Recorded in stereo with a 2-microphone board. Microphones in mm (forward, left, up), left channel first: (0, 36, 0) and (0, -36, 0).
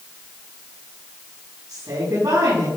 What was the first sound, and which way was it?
A woman speaking, 50° right (ahead or behind).